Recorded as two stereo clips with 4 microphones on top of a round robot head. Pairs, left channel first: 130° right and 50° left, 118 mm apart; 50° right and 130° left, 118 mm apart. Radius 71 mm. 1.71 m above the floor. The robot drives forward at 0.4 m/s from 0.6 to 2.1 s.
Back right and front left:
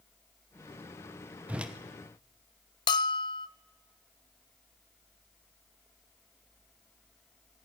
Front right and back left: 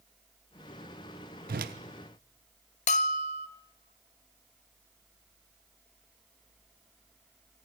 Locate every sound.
1.5 s a whoosh: 130° left, 1.0 m; by 1.7 s 135° left, 1.1 m
2.9 s a bell: 80° right, 0.7 m